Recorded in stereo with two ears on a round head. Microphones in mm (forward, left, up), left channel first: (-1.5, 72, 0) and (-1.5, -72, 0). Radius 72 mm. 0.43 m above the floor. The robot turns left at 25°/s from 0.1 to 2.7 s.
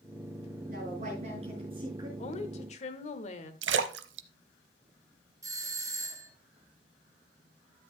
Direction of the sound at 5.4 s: 20° right (ahead or behind).